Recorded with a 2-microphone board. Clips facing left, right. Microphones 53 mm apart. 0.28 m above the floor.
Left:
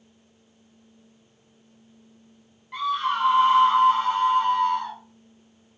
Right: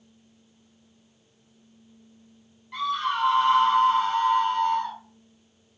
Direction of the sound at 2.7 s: 10° left (ahead or behind).